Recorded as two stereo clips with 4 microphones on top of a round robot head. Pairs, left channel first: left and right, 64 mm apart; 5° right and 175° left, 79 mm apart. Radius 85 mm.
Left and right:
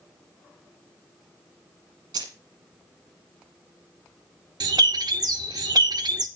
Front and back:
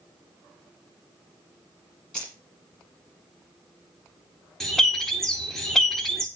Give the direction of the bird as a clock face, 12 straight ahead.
3 o'clock.